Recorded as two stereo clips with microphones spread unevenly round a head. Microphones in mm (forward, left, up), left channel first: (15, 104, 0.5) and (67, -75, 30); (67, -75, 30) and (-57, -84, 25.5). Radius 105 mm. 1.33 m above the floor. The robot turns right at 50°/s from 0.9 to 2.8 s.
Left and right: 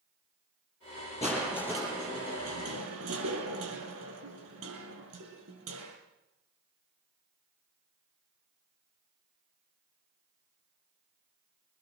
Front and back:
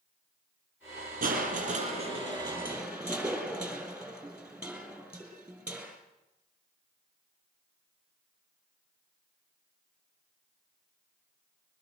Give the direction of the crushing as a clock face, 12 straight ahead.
6 o'clock.